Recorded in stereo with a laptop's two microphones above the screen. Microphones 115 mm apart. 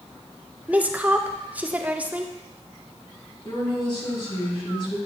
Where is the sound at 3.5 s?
45° left (ahead or behind), 2 m.